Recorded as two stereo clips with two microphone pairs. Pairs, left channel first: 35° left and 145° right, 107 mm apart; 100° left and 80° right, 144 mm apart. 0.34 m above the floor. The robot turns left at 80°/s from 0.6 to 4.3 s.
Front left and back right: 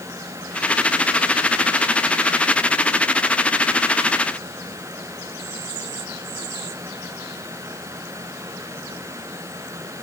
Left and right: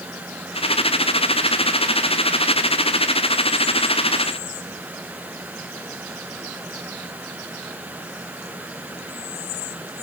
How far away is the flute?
I don't hear a flute.